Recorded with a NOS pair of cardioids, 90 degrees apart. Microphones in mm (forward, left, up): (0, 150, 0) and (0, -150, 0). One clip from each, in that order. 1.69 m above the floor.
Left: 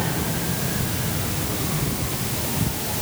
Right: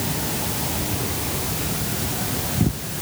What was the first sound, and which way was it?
Only background noise.